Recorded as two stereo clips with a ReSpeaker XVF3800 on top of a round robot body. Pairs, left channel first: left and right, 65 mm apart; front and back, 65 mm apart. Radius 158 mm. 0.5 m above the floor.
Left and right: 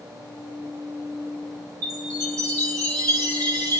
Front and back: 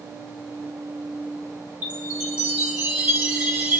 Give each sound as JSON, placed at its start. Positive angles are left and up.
{"t": 1.8, "sound": "a chime", "azimuth_deg": -110, "distance_m": 2.0}